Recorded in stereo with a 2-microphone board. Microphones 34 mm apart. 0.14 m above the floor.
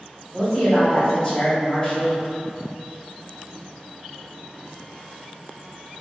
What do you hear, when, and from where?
0.3 s a woman speaking: 20° left (ahead or behind), 1.6 m